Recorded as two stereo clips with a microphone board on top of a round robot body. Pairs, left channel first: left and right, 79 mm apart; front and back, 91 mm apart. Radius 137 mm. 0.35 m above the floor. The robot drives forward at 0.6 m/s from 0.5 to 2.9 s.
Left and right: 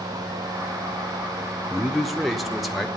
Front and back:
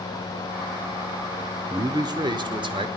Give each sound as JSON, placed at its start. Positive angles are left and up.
{"t": 1.7, "sound": "a man speaking", "azimuth_deg": 180, "distance_m": 1.0}